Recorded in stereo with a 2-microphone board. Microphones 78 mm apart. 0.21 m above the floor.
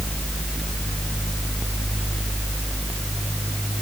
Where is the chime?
No chime in this recording.